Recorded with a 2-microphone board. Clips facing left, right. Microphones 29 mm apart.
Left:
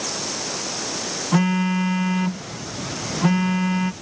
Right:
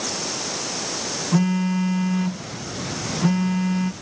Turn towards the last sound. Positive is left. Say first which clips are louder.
# left 1 dB
turn(degrees=25)  # may be behind; listen again after turning